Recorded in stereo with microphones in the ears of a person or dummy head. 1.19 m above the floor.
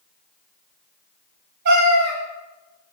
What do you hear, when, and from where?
1.6 s a cat meowing: 50° right (ahead or behind), 1.1 m